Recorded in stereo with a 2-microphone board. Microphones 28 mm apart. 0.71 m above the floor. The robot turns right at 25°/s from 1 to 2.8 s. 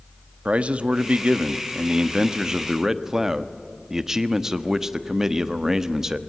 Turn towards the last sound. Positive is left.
turn(degrees=-25)